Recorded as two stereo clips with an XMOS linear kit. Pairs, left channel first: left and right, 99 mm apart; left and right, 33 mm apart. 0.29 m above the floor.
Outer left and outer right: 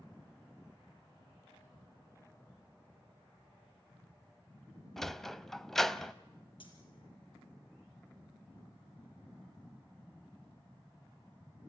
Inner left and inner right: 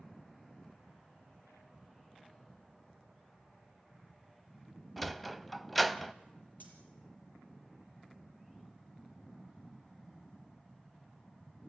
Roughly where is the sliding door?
Centre.